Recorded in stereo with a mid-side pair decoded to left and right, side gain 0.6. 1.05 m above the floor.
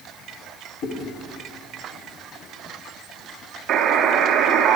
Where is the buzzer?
55° right, 0.8 m.